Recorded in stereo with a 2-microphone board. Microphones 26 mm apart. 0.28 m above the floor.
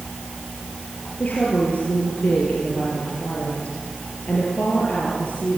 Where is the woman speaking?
75° left (ahead or behind), 6.5 m.